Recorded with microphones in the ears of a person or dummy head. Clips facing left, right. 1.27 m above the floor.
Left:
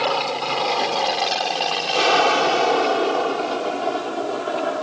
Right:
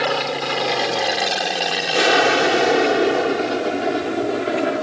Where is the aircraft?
15° right (ahead or behind); by 4.8 s 25° right (ahead or behind).